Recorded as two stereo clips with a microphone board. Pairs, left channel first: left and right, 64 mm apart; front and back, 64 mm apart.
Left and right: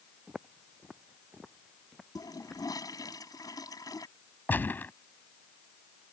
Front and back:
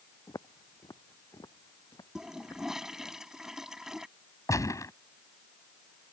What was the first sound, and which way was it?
Footsteps, 10° right.